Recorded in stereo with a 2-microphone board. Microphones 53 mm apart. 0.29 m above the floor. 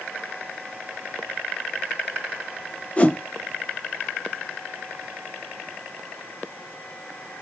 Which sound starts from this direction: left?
A whoosh, at 3.0 s.